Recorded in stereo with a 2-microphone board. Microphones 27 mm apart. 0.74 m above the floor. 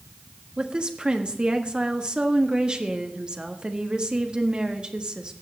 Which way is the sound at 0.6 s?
35° right (ahead or behind).